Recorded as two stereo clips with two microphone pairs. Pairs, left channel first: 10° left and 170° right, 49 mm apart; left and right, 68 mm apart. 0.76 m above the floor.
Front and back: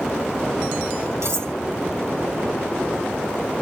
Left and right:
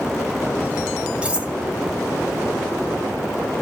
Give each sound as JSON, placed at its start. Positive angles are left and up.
{"t": 1.2, "sound": "cutlery clinking", "azimuth_deg": -160, "distance_m": 1.2}